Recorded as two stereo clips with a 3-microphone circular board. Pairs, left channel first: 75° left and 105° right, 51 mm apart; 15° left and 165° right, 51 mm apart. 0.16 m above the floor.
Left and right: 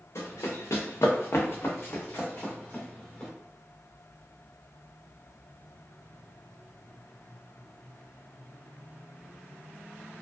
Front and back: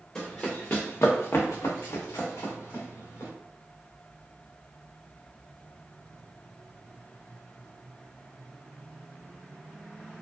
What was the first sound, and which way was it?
Running footsteps, 90° left.